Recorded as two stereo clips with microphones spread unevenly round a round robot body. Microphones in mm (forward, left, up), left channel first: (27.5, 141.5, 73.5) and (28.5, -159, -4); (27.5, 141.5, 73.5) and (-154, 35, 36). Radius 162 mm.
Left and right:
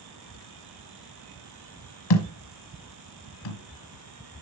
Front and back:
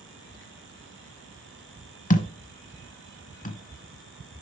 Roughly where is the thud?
Left.